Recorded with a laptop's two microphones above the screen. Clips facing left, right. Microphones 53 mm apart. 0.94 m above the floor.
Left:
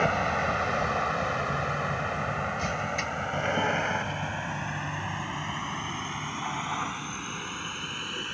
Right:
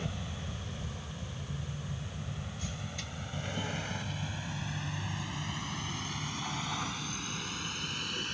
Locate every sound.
0.0 s a vehicle: 70° left (ahead or behind); by 8.3 s 20° left (ahead or behind)